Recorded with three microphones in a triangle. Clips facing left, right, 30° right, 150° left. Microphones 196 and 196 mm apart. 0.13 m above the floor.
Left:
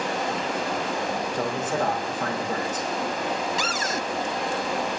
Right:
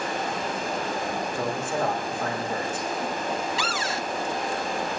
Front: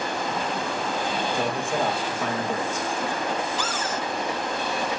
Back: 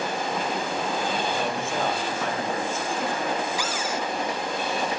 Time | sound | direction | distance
0.0 | running water | 75° left | 8 m
1.3 | a man speaking | 45° left | 5.5 m
3.6 | a cupboard door | 75° left | 0.6 m